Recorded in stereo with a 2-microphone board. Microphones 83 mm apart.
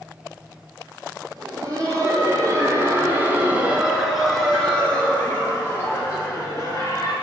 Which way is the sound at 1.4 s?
50° right (ahead or behind).